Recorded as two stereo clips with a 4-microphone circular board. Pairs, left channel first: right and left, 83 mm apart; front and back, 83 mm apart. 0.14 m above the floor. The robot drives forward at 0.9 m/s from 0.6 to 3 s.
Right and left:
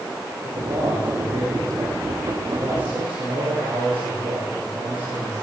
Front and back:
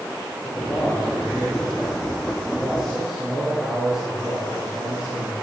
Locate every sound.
0.4 s a man speaking: 85° left, 9.5 m; by 5.3 s 95° left, 9.5 m